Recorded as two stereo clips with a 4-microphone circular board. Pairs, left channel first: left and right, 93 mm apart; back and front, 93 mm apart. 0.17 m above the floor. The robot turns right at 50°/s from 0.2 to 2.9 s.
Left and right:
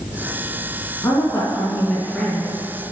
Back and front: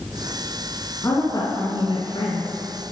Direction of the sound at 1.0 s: 130° left.